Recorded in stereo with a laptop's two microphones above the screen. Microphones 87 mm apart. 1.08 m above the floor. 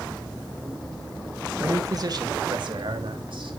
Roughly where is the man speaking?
Right.